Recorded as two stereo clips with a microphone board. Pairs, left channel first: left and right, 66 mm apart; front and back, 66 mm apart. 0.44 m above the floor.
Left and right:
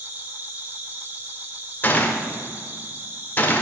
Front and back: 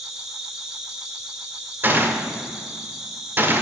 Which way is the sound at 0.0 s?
105° right.